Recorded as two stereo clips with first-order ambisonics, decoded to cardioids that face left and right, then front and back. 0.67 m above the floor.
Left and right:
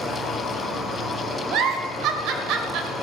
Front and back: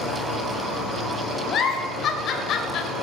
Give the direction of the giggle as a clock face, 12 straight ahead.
2 o'clock.